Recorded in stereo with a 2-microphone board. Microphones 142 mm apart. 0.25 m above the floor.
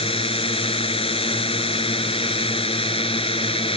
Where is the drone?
40° left (ahead or behind).